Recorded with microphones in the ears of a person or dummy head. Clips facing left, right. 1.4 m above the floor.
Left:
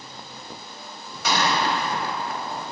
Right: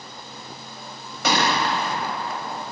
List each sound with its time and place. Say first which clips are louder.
1.2 s a gunshot: right 1 dB; 55° right (ahead or behind), 2 m